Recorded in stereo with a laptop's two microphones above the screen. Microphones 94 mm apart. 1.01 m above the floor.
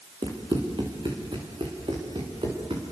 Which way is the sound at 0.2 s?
55° right (ahead or behind).